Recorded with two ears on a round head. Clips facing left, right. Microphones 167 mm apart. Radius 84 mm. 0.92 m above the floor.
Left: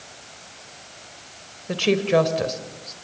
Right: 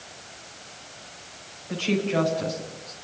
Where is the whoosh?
No whoosh in this recording.